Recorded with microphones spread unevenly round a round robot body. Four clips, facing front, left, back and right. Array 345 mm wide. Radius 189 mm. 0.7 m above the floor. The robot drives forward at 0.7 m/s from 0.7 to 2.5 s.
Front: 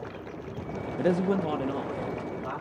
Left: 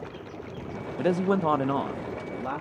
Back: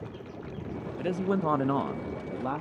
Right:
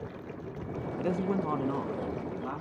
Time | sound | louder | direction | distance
1.0 | a man speaking | left 7 dB, front 3 dB | 25° left | 0.6 m